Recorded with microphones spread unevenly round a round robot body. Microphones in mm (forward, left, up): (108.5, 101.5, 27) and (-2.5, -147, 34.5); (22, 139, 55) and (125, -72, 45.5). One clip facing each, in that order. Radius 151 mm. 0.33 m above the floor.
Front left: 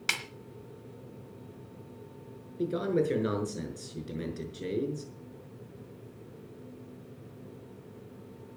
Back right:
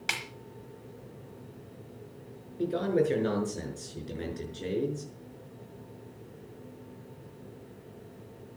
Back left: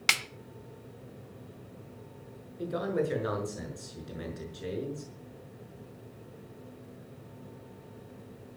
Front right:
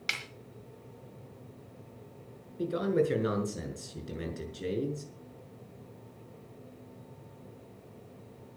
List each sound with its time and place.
0.1 s a snare drum: 140° left, 1.1 m
2.6 s a man speaking: 10° right, 5.5 m